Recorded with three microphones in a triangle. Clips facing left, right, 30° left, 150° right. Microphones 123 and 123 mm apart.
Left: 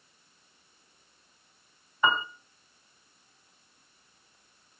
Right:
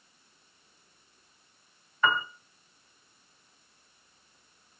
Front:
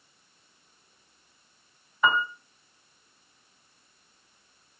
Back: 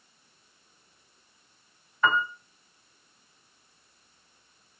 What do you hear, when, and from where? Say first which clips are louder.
2.0 s a piano: left 1 dB, front 1 dB; 80° left, 1.6 m